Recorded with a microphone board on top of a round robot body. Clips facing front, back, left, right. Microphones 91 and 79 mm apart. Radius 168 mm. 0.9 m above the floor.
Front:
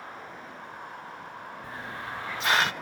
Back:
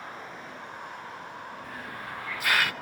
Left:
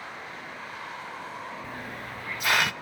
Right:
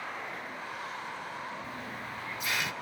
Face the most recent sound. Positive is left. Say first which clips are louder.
# front 1 dB, left 2 dB
turn(degrees=65)